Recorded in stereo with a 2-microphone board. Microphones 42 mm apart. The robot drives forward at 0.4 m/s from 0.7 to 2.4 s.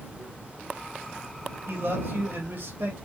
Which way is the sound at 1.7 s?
60° right (ahead or behind).